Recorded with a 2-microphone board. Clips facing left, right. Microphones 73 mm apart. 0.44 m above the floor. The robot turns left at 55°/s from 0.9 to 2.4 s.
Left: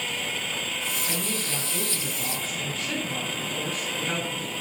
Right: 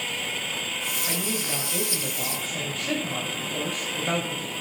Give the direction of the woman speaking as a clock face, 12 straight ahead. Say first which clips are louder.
Right 1 dB; 1 o'clock.